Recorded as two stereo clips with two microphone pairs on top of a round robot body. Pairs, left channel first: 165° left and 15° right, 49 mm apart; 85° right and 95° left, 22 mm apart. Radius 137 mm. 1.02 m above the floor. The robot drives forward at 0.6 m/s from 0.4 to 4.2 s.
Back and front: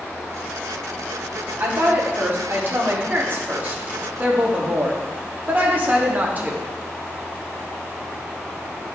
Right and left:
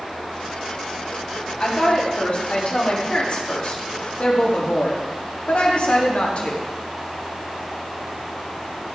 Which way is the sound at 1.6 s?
45° right.